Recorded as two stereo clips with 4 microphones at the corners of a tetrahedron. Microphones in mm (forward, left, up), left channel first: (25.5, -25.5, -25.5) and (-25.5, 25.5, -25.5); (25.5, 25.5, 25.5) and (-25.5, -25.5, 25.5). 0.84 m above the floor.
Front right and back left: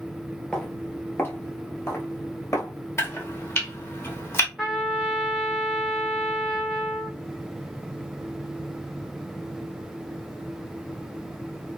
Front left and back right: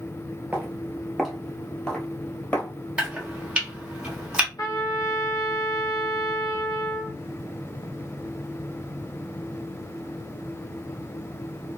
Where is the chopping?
70° right, 1.0 m.